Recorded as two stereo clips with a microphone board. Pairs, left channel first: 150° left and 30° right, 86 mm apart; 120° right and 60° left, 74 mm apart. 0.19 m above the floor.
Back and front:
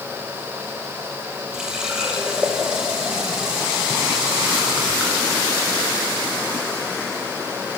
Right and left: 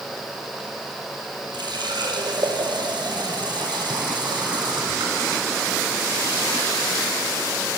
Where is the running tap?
50° left, 3.5 m.